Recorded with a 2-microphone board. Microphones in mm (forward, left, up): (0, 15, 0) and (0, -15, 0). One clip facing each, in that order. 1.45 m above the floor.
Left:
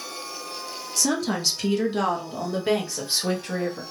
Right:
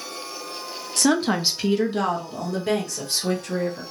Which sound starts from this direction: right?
A woman speaking, at 1.0 s.